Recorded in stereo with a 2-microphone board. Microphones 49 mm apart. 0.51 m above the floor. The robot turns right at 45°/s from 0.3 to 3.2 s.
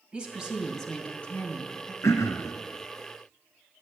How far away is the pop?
No pop in this recording.